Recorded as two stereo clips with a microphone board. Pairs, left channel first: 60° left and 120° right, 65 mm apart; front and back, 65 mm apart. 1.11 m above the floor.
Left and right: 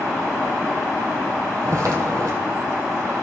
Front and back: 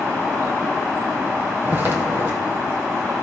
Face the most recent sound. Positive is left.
turn(degrees=-130)